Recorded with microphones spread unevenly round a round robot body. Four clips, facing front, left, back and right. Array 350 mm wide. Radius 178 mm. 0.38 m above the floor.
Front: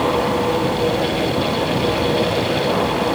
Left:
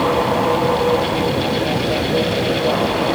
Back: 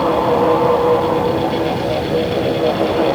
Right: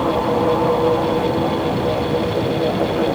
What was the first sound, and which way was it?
Only background noise.